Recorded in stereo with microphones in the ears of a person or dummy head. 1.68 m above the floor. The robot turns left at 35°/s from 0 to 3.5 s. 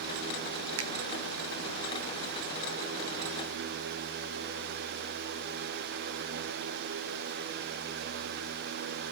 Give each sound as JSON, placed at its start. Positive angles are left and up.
{"t": 0.8, "sound": "a finger snap", "side_deg": -80, "distance_m": 0.9}